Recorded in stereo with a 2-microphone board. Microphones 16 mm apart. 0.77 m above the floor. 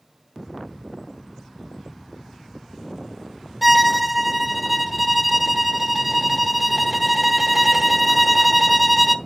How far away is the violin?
About 0.8 m.